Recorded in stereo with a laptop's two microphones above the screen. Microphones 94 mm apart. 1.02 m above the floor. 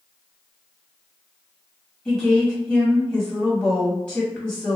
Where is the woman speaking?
20° left (ahead or behind), 1.6 m.